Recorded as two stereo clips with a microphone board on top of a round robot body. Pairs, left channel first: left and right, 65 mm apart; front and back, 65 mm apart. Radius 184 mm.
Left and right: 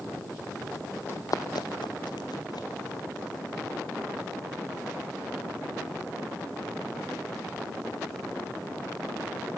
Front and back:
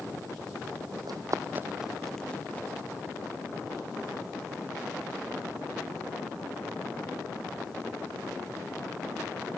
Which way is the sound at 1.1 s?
150° left.